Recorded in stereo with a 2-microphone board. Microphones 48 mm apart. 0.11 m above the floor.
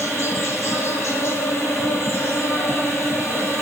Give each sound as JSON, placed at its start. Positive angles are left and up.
{"t": 0.0, "sound": "an insect", "side_deg": 70, "distance_m": 1.3}